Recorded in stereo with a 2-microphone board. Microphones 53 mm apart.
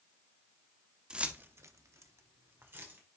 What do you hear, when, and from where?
1.1 s keys jangling: 15° right (ahead or behind), 0.9 m; by 3.0 s 40° right (ahead or behind), 2 m